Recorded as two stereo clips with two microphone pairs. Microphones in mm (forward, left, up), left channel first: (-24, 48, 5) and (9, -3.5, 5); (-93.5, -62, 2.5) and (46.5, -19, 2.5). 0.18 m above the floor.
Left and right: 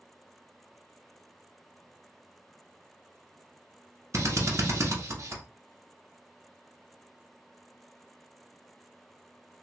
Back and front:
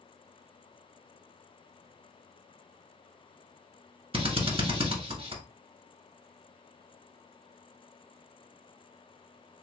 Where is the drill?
30° right, 0.9 m.